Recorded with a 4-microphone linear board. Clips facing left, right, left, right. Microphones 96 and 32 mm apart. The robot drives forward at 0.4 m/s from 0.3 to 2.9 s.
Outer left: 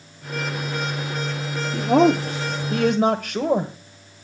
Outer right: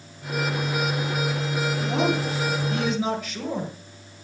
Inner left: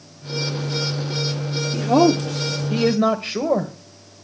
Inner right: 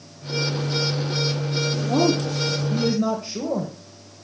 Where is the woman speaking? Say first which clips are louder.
Outer left 10 dB, inner left 6 dB; 75° left (ahead or behind), 1.3 m; by 3.7 s 60° left (ahead or behind), 1.4 m.